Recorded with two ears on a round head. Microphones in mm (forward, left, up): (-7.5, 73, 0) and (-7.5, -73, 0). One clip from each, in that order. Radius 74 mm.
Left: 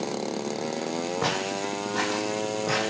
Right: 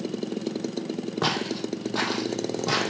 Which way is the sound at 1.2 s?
40° right (ahead or behind).